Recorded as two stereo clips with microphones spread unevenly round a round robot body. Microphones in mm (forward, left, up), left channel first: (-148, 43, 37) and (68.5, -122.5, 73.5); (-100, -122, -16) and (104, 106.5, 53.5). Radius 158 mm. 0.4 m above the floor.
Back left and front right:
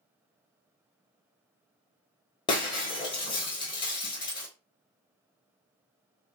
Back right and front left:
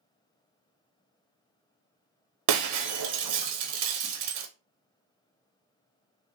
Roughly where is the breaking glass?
Ahead left.